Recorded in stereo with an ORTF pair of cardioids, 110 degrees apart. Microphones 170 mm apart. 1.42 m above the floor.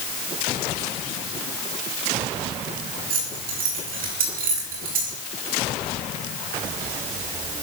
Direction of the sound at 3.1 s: 60° right.